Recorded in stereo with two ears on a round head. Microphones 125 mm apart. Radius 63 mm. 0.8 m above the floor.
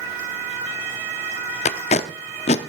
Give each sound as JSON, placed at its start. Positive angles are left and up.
{"t": 1.6, "sound": "tape being pulled", "side_deg": 45, "distance_m": 0.7}